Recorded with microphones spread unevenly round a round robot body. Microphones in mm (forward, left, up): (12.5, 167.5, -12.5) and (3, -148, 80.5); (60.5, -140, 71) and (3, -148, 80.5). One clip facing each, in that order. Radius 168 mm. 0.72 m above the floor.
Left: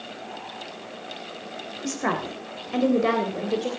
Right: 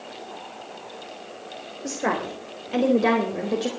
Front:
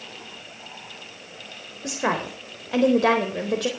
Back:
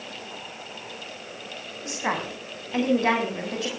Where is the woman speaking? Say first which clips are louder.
Right 1 dB, front 3 dB; 25° left, 3.5 m; by 3.7 s 10° right, 4 m.